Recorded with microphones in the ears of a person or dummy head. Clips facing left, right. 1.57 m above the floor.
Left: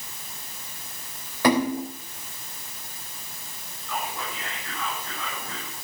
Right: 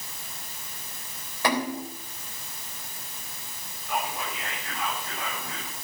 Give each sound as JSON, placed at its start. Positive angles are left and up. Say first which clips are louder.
{"t": 1.4, "sound": "a splash", "louder": "left 6 dB", "side_deg": 70, "distance_m": 3.5}
{"t": 3.9, "sound": "whispering", "louder": "right 2 dB", "side_deg": -20, "distance_m": 9.5}